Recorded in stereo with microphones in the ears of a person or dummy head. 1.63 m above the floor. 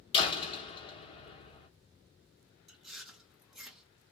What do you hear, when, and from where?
0.1 s a door slam: 30° left (ahead or behind), 1.4 m
2.7 s chewing: centre (ahead or behind), 1.1 m